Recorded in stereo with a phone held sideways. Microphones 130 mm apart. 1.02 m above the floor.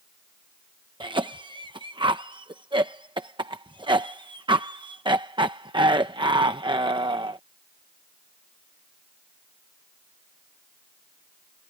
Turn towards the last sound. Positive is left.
turn(degrees=-40)  # may be behind; listen again after turning